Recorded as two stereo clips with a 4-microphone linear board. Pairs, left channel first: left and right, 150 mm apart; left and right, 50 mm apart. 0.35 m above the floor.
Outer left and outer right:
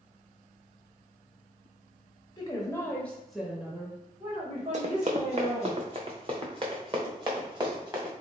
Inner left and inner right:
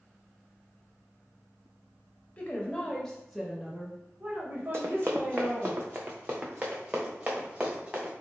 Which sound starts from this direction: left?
A woman speaking, at 2.4 s.